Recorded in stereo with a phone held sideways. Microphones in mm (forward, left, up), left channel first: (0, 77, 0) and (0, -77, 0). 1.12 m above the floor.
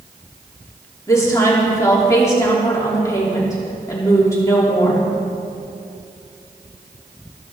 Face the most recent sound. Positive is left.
turn(degrees=20)  # may be behind; listen again after turning